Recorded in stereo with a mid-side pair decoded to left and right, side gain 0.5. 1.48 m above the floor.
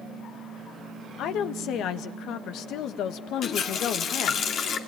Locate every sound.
1.2 s a woman speaking: 70° left, 1.5 m
3.4 s a running tap: 55° left, 2.5 m